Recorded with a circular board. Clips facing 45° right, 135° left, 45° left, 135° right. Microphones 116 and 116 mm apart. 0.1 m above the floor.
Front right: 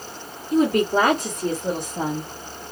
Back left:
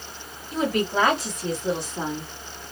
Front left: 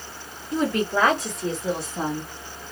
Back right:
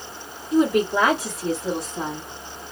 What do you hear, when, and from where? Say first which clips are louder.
0.5 s a woman speaking: front right 5 dB, back right 4 dB; 70° right, 2 m; by 2.3 s 30° right, 2.0 m